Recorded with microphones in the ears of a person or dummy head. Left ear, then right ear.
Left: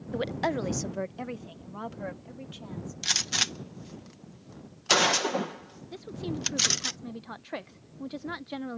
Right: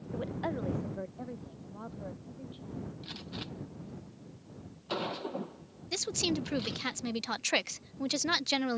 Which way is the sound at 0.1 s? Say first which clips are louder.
Left 7 dB; 60° left (ahead or behind).